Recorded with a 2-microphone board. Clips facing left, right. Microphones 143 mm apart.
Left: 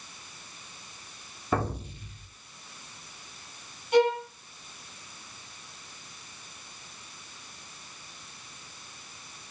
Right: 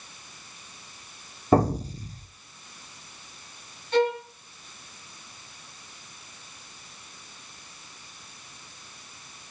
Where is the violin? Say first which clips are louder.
Left 1 dB; 15° left (ahead or behind), 7.5 m.